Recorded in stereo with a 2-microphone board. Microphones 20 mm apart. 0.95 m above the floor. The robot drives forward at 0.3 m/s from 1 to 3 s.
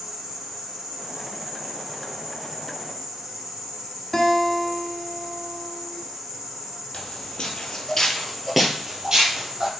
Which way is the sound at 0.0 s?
35° right (ahead or behind).